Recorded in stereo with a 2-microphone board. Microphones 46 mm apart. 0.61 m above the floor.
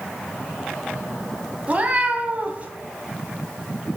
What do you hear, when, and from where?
1.7 s a cat meowing: 30° right (ahead or behind), 0.6 m